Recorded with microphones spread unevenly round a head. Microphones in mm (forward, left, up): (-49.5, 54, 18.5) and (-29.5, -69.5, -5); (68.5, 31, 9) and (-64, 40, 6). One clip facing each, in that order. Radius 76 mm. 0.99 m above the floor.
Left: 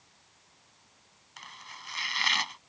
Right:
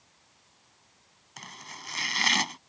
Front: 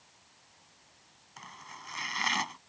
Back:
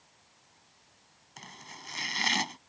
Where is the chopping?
120° right.